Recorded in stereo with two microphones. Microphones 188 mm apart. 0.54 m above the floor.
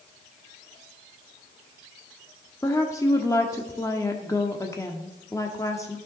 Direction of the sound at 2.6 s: 15° left (ahead or behind).